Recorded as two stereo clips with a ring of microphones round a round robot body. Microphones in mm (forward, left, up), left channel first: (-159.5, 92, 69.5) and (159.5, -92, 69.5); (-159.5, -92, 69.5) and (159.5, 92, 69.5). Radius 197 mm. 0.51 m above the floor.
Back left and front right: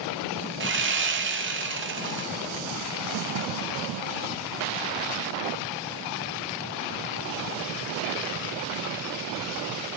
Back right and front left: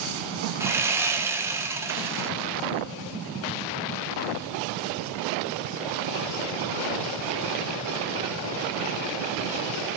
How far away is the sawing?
About 1.2 m.